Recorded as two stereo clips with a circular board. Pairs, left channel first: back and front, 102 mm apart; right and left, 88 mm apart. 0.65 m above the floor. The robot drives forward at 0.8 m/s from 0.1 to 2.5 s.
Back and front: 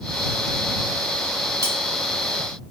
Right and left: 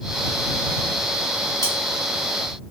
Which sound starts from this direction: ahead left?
Cutlery clinking, at 1.6 s.